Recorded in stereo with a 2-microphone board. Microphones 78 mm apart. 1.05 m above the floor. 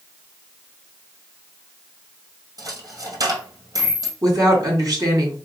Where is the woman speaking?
50° right (ahead or behind), 2.5 m.